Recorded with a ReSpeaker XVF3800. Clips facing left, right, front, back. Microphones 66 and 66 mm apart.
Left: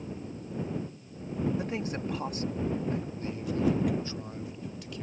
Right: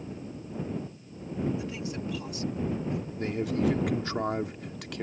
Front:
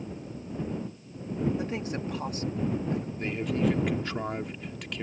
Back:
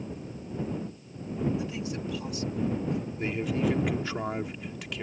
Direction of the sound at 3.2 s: 95° right.